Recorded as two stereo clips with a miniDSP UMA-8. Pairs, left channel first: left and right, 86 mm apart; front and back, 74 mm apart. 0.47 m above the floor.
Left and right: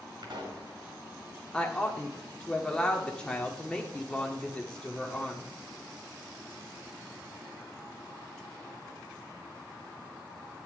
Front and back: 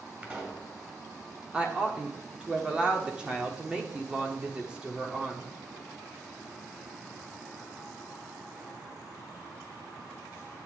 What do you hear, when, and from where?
0.2 s a pop: 115° right, 2.5 m
1.5 s a woman speaking: 145° left, 1.2 m